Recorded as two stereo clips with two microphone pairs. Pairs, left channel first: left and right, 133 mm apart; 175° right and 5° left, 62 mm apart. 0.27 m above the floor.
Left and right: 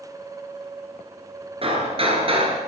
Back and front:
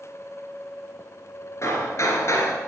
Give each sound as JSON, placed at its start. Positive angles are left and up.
{"t": 1.6, "sound": "hammering", "azimuth_deg": -135, "distance_m": 2.5}